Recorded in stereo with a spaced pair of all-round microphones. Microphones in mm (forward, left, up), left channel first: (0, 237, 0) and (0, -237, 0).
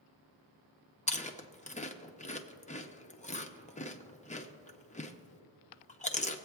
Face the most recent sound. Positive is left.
turn(degrees=15)  # may be behind; listen again after turning